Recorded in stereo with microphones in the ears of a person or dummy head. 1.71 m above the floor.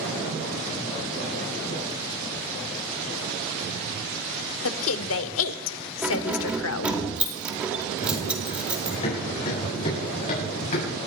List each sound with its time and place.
4.6 s a woman speaking: 80° left, 1.0 m
6.0 s keys jangling: 5° right (ahead or behind), 2.5 m
8.0 s running footsteps: 30° left (ahead or behind), 8 m; by 11.0 s 45° left (ahead or behind), 7.5 m